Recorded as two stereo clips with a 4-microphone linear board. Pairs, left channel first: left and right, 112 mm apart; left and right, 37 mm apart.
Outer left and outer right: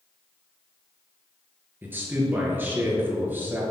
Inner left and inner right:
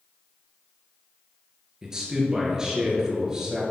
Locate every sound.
1.8 s a man speaking: 20° right (ahead or behind), 2.5 m